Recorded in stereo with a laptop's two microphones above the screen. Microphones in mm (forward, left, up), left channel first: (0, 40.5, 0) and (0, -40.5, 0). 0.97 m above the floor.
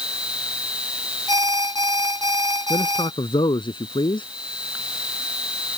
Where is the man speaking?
80° left.